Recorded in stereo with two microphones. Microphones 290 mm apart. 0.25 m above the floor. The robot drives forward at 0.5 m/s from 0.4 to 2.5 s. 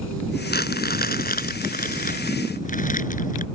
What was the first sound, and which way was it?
Crumpling, 35° left (ahead or behind).